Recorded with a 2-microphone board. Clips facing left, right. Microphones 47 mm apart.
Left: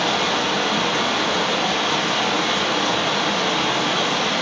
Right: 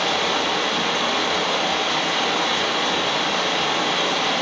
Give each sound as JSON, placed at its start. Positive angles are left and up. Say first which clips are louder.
{"t": 0.0, "sound": "running water", "louder": "left 1 dB", "side_deg": 60, "distance_m": 1.6}